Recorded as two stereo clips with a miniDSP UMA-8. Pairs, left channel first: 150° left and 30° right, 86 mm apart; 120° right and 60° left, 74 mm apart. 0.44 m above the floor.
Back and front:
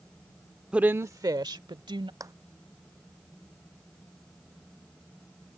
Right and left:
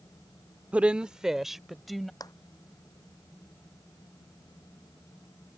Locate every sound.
0.7 s a woman speaking: 30° left; by 2.1 s 30° right
2.2 s a clap: 80° right